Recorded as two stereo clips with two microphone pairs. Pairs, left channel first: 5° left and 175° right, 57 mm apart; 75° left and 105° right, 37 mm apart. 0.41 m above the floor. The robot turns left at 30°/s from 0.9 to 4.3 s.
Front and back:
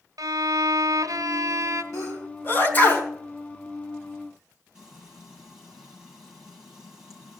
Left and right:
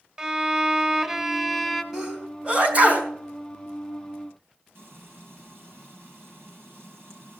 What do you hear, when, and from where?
0.2 s a violin: straight behind, 1.1 m; by 1.8 s 155° left, 1.1 m
1.9 s a sneeze: 30° right, 4 m; by 3.1 s 65° right, 4 m
4.8 s frying: 95° right, 7.5 m